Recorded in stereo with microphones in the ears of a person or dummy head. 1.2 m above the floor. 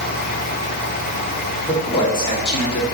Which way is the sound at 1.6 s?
15° left (ahead or behind).